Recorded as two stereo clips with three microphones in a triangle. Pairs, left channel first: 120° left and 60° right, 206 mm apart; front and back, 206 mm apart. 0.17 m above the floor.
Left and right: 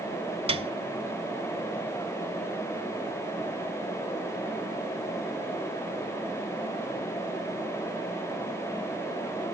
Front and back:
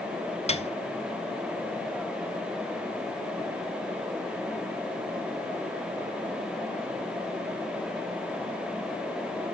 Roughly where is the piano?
Ahead right.